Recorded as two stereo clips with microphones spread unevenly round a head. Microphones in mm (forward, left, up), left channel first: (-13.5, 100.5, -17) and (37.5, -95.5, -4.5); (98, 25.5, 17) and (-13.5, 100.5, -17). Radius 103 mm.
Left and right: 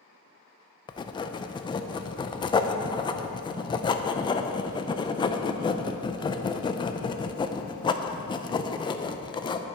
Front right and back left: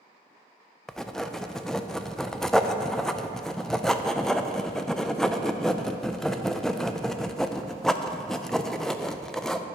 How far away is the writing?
About 0.5 m.